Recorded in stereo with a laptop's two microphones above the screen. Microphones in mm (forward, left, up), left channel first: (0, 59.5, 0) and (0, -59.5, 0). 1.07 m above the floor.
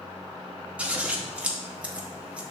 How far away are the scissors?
About 0.7 m.